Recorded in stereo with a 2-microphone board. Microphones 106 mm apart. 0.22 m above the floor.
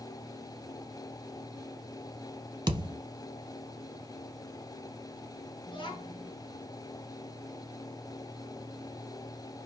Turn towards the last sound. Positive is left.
turn(degrees=45)  # may be behind; listen again after turning